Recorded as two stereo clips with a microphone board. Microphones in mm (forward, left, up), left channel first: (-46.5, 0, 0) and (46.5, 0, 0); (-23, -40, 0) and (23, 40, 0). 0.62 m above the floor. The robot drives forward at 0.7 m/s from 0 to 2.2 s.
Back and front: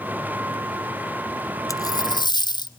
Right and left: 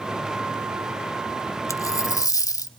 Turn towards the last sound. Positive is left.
turn(degrees=-165)